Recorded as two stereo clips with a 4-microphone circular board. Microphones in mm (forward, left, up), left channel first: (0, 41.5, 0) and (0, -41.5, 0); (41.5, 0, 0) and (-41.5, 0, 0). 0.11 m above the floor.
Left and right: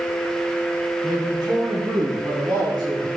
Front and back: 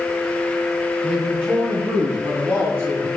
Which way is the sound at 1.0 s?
105° right.